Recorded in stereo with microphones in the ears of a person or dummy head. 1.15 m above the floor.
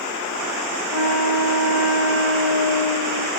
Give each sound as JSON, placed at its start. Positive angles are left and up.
{"t": 0.9, "sound": "a flute", "side_deg": -75, "distance_m": 9.0}